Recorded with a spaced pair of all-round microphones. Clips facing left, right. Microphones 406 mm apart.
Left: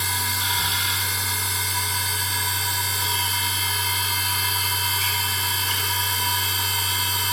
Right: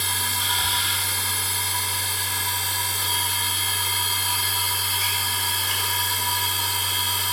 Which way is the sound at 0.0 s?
20° left (ahead or behind).